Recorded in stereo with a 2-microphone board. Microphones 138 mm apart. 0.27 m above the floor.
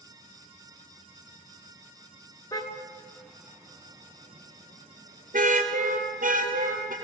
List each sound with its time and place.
2.5 s a car horn: 25° left (ahead or behind), 2.5 m; by 6.9 s 75° right (ahead or behind), 5 m